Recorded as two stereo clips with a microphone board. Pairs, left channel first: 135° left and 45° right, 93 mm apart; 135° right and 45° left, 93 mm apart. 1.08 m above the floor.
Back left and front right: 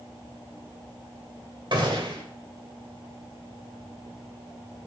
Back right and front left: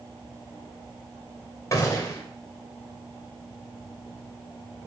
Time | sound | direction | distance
1.7 | a gunshot | 75° right | 2 m